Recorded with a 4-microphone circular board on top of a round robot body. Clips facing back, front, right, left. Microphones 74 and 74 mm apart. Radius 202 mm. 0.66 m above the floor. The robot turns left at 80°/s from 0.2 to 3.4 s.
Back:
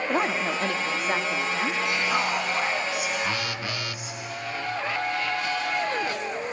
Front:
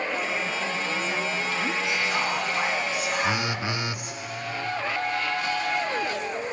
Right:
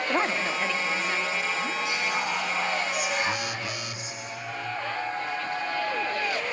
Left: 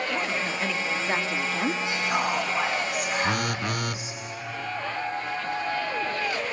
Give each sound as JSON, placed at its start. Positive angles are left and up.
{"t": 0.1, "sound": "a woman speaking", "azimuth_deg": -140, "distance_m": 1.5}
{"t": 1.9, "sound": "whispering", "azimuth_deg": 150, "distance_m": 2.5}
{"t": 3.2, "sound": "a phone buzzing", "azimuth_deg": 80, "distance_m": 1.2}